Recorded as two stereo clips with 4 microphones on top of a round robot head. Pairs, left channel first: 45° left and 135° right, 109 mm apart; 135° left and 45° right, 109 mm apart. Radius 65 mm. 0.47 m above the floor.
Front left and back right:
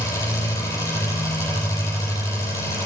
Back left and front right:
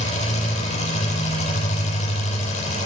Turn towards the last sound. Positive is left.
turn(degrees=105)